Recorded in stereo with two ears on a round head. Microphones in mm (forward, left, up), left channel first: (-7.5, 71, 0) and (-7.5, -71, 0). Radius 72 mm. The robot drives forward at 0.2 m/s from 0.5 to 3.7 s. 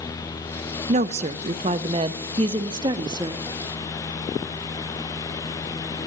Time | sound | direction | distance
0.9 | a woman speaking | 45° right (ahead or behind) | 0.6 m